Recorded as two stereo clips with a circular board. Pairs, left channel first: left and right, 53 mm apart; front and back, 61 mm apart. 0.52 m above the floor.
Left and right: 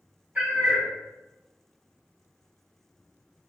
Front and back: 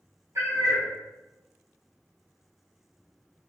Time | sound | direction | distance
0.3 | a cat meowing | 155° right | 1.0 m